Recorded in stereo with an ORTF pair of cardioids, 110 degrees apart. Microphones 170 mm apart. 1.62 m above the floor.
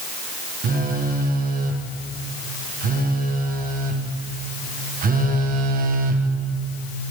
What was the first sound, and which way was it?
A phone buzzing, 60° right.